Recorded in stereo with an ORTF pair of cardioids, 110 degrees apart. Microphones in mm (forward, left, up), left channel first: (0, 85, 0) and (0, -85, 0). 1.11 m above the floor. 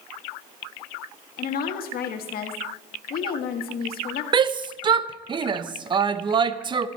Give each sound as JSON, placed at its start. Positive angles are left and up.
{"t": 1.4, "sound": "a woman speaking", "azimuth_deg": 60, "distance_m": 1.8}
{"t": 4.3, "sound": "a shout", "azimuth_deg": -30, "distance_m": 0.8}